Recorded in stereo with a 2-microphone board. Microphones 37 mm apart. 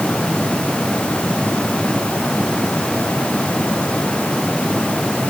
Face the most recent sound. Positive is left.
No sound to turn to.